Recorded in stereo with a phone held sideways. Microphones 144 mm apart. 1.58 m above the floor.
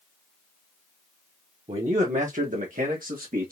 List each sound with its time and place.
1.7 s a man speaking: 45° right (ahead or behind), 1.1 m; by 3.5 s 80° right, 1.6 m